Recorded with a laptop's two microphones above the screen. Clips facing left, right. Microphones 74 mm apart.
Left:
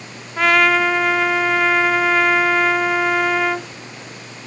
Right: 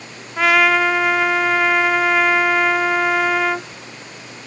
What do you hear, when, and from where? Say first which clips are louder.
0.4 s a trumpet: even; centre (ahead or behind), 0.5 m